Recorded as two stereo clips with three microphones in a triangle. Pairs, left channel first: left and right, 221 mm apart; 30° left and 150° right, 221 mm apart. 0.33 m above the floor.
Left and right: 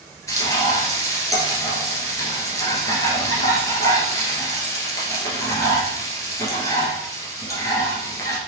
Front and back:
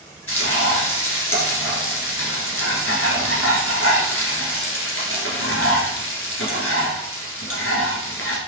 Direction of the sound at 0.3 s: 15° left.